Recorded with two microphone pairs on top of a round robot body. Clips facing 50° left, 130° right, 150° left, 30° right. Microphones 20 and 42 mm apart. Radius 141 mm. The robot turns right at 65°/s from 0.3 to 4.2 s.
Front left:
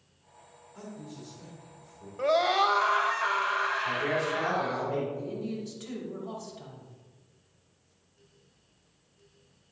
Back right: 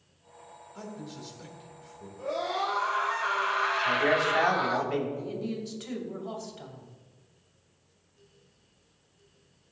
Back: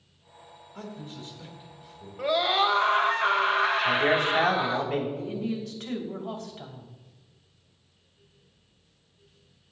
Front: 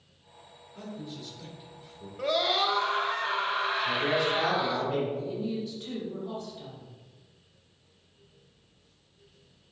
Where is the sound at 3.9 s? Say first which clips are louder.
Back right 4 dB, back 4 dB; 165° left, 3.5 m; by 5.1 s 170° right, 3.5 m.